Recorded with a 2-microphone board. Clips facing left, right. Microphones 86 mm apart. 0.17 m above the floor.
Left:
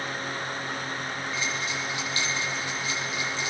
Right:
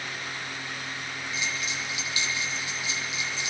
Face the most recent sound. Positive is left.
turn(degrees=-20)  # may be behind; listen again after turning